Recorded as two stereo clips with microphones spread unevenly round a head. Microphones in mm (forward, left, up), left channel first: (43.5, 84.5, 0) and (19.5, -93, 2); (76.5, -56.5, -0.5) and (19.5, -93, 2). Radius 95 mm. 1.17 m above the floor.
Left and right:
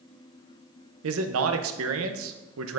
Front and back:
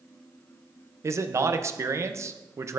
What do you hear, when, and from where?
1.0 s a man speaking: 100° right, 0.6 m